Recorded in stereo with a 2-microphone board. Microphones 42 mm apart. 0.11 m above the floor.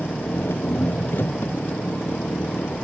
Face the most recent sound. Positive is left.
turn(degrees=60)  # may be behind; listen again after turning